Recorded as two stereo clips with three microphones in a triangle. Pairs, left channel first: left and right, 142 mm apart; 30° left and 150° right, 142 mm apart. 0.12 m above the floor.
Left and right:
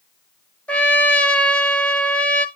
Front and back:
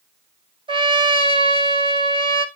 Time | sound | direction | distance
0.7 | a trumpet | 170° left | 1.0 m